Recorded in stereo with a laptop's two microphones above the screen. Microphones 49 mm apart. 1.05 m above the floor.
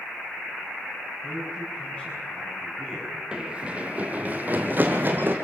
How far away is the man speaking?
About 7 m.